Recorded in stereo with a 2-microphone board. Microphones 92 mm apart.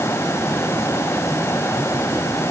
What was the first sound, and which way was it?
Only background noise.